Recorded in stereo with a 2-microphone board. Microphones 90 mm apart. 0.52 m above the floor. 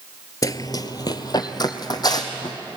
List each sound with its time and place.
0.4 s running footsteps: 40° left (ahead or behind), 0.6 m; by 2.6 s 45° left (ahead or behind), 2 m